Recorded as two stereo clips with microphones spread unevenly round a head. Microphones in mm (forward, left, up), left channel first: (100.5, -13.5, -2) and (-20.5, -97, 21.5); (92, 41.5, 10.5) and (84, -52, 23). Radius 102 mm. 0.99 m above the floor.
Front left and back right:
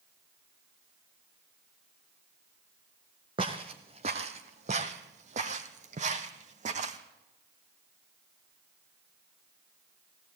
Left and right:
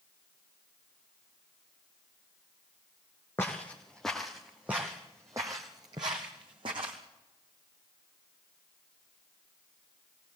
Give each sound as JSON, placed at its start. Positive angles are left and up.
{"t": 3.4, "sound": "footsteps", "azimuth_deg": 165, "distance_m": 1.7}